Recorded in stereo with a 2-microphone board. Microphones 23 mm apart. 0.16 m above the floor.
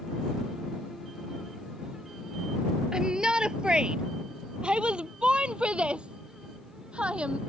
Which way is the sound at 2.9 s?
35° right (ahead or behind).